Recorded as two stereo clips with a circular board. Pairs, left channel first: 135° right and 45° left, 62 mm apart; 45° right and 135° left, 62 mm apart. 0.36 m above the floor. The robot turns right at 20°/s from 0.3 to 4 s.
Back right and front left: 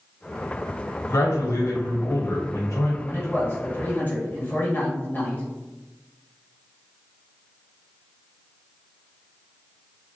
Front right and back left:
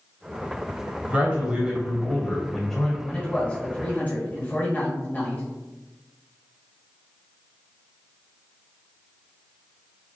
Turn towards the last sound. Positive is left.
turn(degrees=-90)